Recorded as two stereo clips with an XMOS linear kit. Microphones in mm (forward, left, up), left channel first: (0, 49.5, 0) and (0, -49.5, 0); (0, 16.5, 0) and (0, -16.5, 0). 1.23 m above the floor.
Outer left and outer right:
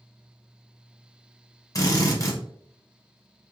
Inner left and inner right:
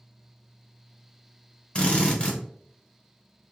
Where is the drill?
35° left (ahead or behind), 0.8 m.